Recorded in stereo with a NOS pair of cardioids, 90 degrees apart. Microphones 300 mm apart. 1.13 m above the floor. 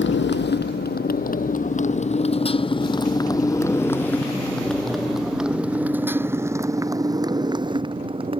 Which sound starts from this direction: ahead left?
A motorcycle, at 0.0 s.